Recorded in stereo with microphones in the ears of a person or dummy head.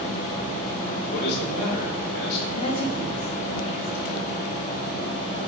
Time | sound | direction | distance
1.1 | a man speaking | 60° left (ahead or behind) | 1.4 m
2.6 | a woman speaking | 35° left (ahead or behind) | 0.6 m